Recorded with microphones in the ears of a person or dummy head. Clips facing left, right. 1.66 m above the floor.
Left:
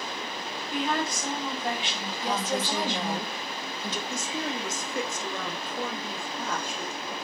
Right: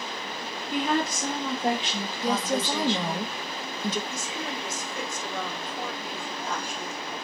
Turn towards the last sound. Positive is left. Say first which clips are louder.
# left 2 dB
turn(degrees=65)  # may be behind; listen again after turning